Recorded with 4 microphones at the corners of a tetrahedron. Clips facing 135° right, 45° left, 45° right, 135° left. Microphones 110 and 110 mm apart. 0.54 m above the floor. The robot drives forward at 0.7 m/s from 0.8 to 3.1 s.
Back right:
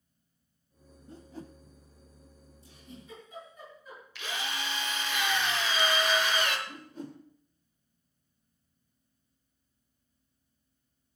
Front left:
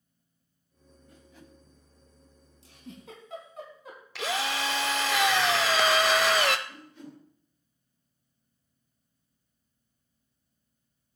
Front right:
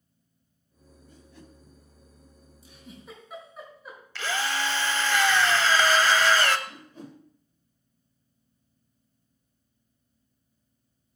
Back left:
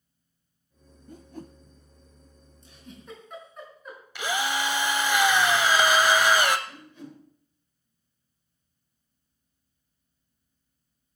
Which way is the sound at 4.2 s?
60° left.